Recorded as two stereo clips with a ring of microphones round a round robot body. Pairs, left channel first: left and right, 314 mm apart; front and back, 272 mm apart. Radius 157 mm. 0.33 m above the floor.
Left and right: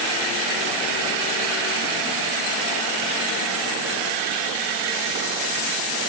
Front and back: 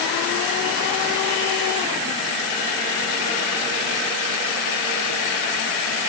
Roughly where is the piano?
I don't hear a piano.